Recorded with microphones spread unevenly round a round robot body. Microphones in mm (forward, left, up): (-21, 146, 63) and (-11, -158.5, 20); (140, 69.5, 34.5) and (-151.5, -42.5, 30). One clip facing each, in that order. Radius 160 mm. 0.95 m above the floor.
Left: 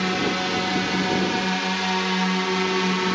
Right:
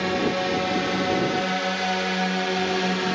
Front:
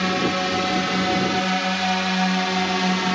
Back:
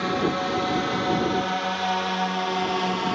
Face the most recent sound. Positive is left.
turn(degrees=20)